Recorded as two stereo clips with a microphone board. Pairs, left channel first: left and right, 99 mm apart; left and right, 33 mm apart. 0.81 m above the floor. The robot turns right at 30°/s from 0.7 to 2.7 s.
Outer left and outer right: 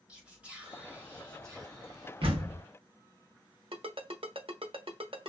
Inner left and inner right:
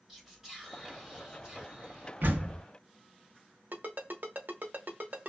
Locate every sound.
0.1 s whispering: 165° right, 1.3 m; by 2.1 s 120° right, 1.3 m
2.2 s a door slam: 75° right (ahead or behind), 0.7 m; by 2.6 s 80° right, 0.7 m
3.7 s a ringtone: 70° right (ahead or behind), 0.8 m